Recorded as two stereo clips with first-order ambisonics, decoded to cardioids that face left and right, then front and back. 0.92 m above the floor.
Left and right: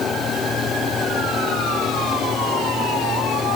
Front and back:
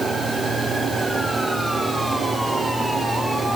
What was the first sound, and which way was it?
Only background noise.